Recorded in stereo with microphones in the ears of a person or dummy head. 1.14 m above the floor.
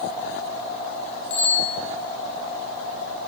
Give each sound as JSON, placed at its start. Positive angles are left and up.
{"t": 1.3, "sound": "a bicycle bell", "side_deg": 35, "distance_m": 7.0}